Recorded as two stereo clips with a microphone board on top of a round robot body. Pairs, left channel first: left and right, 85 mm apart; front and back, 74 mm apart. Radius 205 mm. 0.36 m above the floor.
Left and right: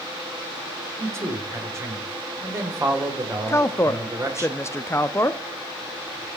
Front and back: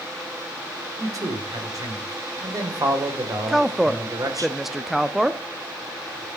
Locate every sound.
1.0 s a man speaking: 145° right, 3 m
3.5 s a woman speaking: 100° left, 0.8 m